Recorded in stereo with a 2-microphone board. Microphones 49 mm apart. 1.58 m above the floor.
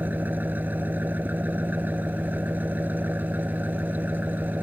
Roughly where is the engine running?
Right.